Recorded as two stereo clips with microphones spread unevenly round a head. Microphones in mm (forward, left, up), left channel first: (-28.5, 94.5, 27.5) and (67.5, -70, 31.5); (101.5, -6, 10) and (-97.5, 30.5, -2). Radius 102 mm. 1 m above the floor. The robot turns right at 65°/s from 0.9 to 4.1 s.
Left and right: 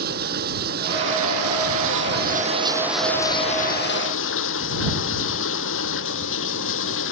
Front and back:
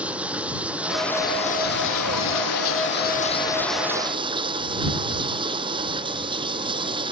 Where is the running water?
105° right; by 7.1 s 100° left.